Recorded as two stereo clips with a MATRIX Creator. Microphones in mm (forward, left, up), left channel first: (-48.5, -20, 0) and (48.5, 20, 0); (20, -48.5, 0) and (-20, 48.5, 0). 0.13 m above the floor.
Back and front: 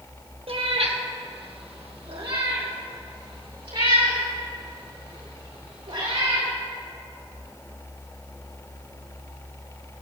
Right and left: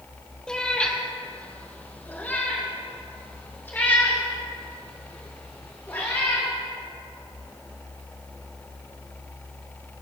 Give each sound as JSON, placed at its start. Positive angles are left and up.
{"t": 0.5, "sound": "a cat meowing", "azimuth_deg": 15, "distance_m": 1.8}